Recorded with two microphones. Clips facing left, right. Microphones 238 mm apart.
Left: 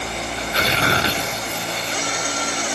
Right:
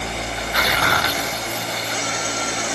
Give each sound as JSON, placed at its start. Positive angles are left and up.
{"t": 0.3, "sound": "tearing paper", "side_deg": 30}